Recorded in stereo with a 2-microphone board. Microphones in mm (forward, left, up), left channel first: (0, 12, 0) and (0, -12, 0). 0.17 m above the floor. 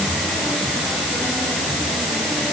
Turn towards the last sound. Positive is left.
No sound to turn to.